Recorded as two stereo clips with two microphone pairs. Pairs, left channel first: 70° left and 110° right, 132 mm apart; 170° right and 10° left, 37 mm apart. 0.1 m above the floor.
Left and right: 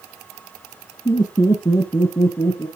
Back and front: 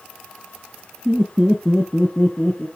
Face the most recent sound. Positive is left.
turn(degrees=130)